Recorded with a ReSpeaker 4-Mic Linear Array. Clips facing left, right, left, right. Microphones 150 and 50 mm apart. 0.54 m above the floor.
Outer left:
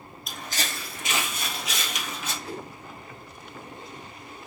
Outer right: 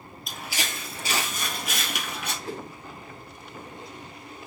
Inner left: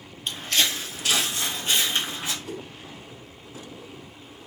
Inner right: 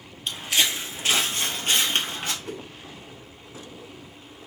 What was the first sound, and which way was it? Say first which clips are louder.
Footsteps: even, even; centre (ahead or behind).